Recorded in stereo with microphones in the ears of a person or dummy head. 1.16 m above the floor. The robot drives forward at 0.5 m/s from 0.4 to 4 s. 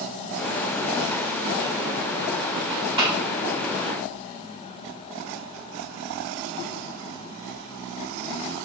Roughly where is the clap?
Right.